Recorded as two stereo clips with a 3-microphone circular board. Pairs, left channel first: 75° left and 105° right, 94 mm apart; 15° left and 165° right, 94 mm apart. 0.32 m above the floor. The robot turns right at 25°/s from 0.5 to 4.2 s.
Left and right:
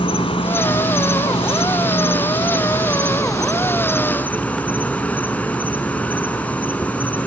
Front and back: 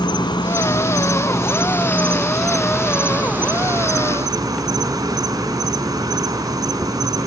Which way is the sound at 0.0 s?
55° left.